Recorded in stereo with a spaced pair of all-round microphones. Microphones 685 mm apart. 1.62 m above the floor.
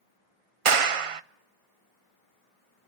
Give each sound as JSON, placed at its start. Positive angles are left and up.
{"t": 0.7, "sound": "a clap", "side_deg": -50, "distance_m": 0.7}